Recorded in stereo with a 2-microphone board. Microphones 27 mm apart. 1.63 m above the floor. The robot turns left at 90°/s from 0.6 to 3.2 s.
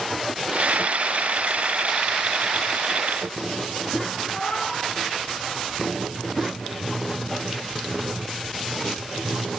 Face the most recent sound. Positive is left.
turn(degrees=55)  # may be behind; listen again after turning